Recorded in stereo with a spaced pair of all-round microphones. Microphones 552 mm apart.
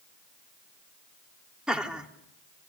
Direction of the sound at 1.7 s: Centre (ahead or behind).